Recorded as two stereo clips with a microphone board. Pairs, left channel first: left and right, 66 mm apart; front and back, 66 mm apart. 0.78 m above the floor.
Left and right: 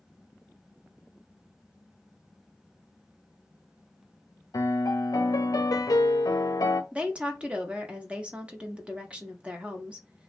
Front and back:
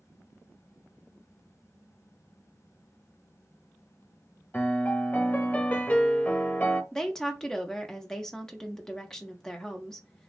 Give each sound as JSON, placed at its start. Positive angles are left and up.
{"t": 4.5, "sound": "a piano", "azimuth_deg": 65, "distance_m": 0.5}
{"t": 6.9, "sound": "a woman speaking", "azimuth_deg": -65, "distance_m": 0.6}